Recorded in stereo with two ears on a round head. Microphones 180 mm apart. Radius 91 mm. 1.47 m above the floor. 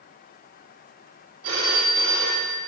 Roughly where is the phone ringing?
Right.